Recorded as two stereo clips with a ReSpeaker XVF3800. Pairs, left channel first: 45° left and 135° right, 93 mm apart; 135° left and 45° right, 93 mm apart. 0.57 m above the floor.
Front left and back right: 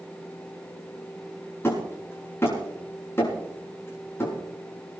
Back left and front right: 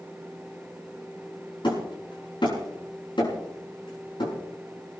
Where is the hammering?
110° left, 7 m.